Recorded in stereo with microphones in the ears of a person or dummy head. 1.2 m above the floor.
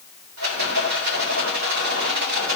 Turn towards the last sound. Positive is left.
turn(degrees=-85)